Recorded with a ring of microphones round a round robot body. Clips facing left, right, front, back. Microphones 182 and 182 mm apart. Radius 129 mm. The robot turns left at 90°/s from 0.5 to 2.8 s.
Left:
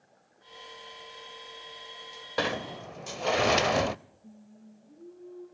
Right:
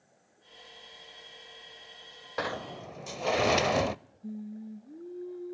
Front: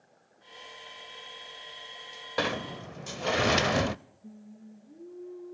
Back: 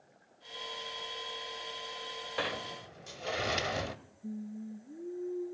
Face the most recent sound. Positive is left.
turn(degrees=-110)